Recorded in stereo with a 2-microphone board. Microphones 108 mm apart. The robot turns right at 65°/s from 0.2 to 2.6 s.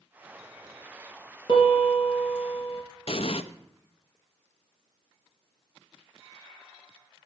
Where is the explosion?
60° left (ahead or behind), 0.6 m.